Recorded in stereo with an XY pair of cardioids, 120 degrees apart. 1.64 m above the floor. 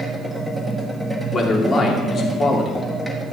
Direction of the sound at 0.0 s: Straight ahead.